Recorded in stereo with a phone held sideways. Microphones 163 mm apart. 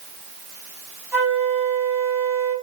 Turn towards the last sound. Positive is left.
turn(degrees=-10)  # may be behind; listen again after turning